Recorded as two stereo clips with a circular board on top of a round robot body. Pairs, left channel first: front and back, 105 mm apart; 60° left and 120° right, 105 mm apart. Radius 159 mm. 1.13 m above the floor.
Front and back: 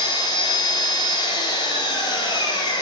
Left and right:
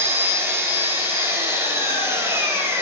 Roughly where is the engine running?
Ahead right.